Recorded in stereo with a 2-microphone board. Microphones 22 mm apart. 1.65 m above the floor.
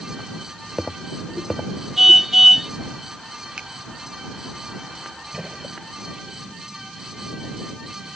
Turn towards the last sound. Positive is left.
turn(degrees=-25)  # may be behind; listen again after turning